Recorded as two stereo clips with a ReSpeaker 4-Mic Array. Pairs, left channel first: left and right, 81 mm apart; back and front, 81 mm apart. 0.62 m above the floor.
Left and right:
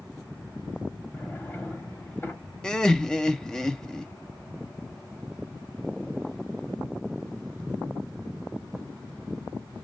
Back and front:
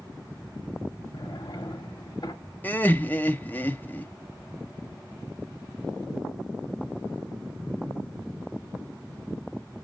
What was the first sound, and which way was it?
A drawer, 155° left.